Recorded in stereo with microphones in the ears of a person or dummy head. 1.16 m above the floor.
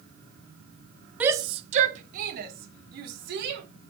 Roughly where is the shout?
Centre.